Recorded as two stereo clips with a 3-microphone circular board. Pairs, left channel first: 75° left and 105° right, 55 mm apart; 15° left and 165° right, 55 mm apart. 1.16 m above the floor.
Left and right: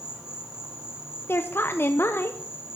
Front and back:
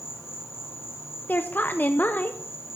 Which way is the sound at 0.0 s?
30° right.